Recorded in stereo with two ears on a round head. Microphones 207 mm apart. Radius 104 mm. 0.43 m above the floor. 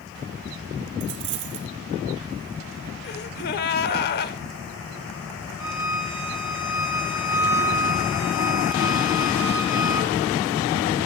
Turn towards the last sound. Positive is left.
turn(degrees=-10)  # may be behind; listen again after turning